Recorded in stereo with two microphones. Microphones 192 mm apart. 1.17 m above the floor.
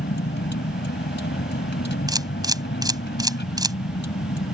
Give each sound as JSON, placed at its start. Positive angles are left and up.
{"t": 0.0, "sound": "a vehicle", "side_deg": 60}
{"t": 2.1, "sound": "a camera shutter", "side_deg": -20}